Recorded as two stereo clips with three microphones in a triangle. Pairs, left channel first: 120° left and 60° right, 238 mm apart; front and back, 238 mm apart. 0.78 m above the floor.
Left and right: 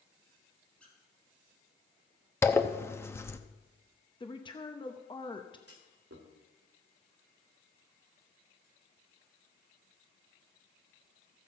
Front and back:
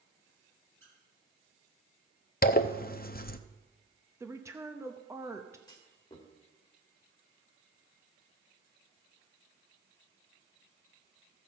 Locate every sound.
0.8 s a squeak: 155° right, 2.5 m
2.4 s a zipper: 45° left, 0.6 m
4.2 s a woman speaking: 125° left, 0.7 m
5.7 s a clunk: 70° right, 1.7 m